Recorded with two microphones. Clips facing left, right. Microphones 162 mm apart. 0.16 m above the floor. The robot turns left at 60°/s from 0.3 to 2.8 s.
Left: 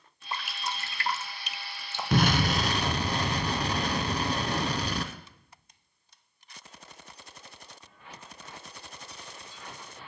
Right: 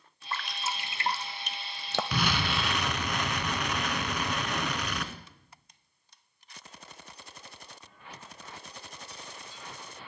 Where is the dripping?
15° left (ahead or behind), 0.7 m; by 2.0 s 75° right (ahead or behind), 0.7 m.